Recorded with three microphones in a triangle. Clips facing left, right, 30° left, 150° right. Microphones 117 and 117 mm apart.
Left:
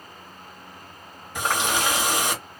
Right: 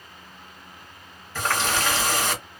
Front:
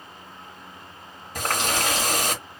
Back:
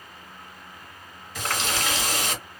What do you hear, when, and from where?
1.4 s a running tap: 25° left, 1.0 m